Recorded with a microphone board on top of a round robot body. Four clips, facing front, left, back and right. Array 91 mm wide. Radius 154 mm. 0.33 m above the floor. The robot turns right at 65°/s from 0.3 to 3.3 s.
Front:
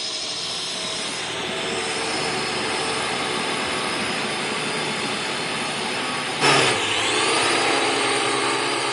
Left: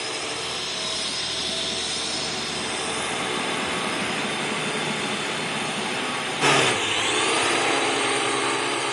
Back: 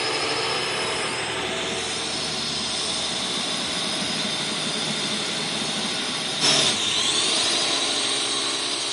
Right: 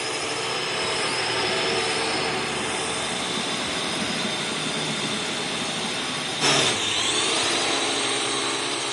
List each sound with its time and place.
0.0 s a drone: 165° right; by 8.9 s 30° left